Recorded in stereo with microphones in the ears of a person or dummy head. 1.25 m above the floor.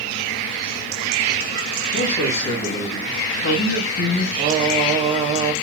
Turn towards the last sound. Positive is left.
turn(degrees=-30)  # may be behind; listen again after turning